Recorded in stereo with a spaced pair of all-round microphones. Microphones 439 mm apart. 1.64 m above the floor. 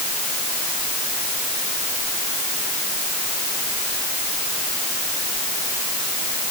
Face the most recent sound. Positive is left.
No sound to turn to.